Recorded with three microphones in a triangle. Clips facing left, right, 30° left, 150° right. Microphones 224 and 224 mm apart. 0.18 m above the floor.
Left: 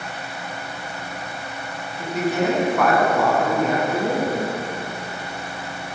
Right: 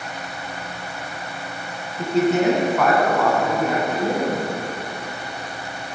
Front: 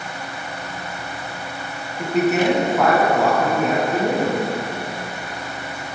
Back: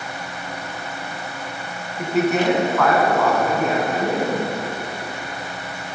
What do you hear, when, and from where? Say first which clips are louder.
2.0 s a man speaking: right 4 dB, front 1 dB; 70° right, 1.4 m; by 4.4 s 60° left, 2 m